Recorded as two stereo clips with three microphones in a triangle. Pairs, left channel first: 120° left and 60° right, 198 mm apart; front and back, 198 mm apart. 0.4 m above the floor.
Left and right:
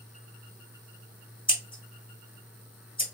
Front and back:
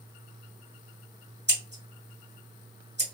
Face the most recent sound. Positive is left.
turn(degrees=180)